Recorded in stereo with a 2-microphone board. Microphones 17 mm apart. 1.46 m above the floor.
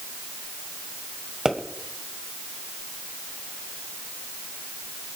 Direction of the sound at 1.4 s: 35° right (ahead or behind).